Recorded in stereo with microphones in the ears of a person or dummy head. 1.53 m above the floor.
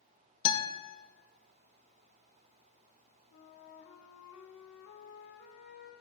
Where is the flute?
50° left (ahead or behind), 1.2 m.